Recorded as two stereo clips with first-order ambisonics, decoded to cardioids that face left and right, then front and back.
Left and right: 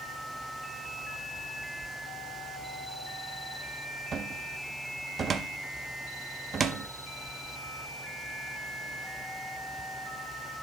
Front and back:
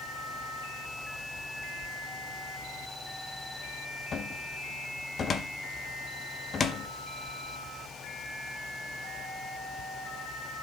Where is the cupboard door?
45° right, 0.5 m.